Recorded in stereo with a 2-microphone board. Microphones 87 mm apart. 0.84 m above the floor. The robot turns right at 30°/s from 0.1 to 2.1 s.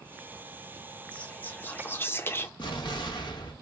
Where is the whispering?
15° left (ahead or behind), 0.5 m; by 2.5 s 25° left (ahead or behind), 0.5 m.